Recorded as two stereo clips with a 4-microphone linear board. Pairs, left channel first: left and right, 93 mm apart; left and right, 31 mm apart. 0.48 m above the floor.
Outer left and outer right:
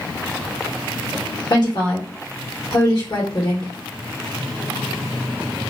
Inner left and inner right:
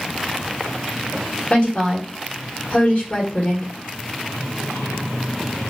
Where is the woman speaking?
50° left (ahead or behind), 1.3 m.